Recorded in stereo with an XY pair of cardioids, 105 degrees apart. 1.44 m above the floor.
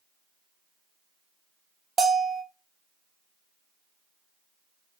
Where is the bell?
25° right, 0.5 m.